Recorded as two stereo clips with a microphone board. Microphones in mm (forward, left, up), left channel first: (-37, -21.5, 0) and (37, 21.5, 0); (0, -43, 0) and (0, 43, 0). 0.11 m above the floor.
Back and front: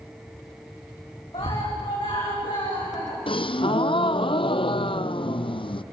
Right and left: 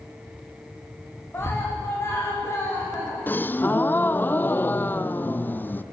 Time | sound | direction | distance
1.3 | a scream | 150° right | 9.5 m
3.3 | a gasp | 155° right | 0.8 m